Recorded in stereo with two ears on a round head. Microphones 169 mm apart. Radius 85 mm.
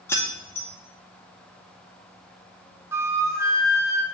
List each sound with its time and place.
0.1 s keys jangling: 10° left (ahead or behind), 0.9 m
2.9 s a flute: 15° right (ahead or behind), 0.7 m